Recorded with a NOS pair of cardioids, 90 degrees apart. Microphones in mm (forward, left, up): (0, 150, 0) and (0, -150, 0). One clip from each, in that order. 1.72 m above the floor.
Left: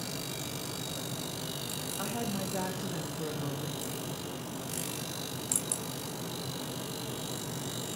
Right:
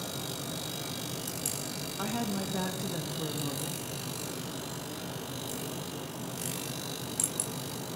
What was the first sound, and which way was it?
A woman speaking, 10° right.